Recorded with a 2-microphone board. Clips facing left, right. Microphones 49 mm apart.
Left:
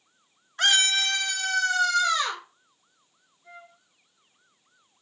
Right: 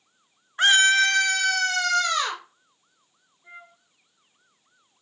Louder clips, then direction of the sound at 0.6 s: Right 6 dB; 20° right (ahead or behind).